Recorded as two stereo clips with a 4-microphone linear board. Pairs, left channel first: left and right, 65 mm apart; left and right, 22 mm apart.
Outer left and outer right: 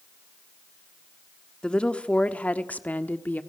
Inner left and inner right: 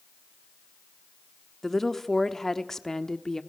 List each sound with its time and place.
1.6 s a woman speaking: 15° left (ahead or behind), 1.1 m; by 3.4 s 25° left (ahead or behind), 1.3 m